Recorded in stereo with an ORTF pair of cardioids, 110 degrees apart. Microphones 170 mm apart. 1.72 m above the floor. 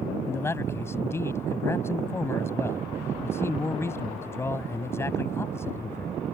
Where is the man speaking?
15° left.